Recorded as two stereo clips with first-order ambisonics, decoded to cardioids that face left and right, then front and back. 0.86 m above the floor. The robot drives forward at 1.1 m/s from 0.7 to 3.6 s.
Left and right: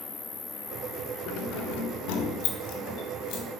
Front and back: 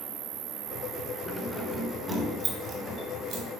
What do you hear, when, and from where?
0.0 s an insect: 160° left, 0.7 m; by 3.6 s 175° left, 3.5 m
1.3 s keys jangling: 75° left, 2 m; by 3.4 s 130° left, 2.5 m